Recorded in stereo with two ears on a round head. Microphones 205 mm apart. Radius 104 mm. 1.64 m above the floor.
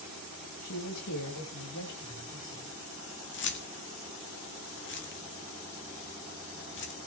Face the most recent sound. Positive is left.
turn(degrees=50)  # may be behind; listen again after turning